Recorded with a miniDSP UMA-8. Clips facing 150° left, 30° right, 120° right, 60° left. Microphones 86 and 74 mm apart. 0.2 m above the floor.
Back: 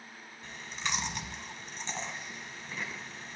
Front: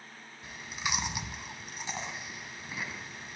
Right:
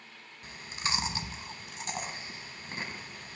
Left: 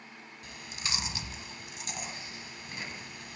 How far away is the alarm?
No alarm in this recording.